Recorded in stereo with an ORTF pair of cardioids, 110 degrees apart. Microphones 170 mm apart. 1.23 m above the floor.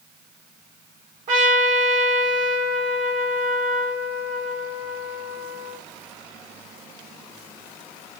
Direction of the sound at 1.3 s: 50° right.